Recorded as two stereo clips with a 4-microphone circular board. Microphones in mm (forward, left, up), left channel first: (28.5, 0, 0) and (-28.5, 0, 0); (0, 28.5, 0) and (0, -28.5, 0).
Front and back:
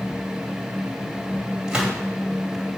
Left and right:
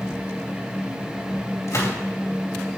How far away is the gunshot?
About 2.5 m.